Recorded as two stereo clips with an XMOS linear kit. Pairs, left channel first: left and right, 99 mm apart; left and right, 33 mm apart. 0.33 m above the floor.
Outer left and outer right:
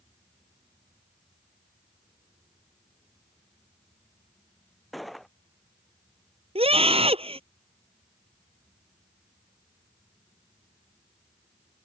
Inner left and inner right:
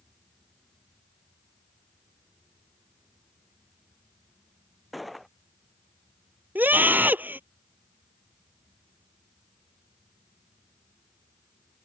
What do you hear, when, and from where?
4.9 s a gunshot: centre (ahead or behind)
6.5 s a scream: 75° right (ahead or behind)